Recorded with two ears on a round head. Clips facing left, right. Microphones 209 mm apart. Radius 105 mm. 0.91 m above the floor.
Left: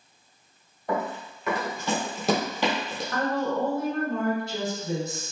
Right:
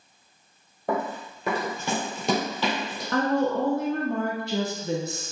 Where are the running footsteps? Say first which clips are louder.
Right 1 dB; 50° right (ahead or behind), 1.4 m; by 3.0 s 25° left (ahead or behind), 1.4 m.